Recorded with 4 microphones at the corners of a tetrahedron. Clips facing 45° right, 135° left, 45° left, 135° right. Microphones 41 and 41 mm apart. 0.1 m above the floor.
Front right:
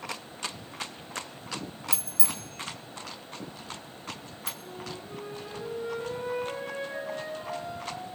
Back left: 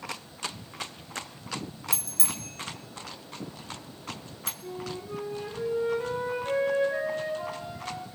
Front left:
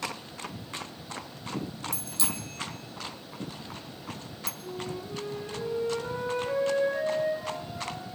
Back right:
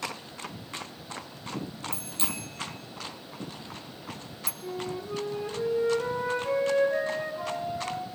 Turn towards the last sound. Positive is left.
turn(degrees=-155)